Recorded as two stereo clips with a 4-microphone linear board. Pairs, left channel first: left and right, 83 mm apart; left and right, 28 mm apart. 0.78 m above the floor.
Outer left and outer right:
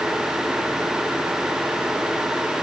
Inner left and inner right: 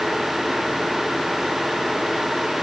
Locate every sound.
Only background noise.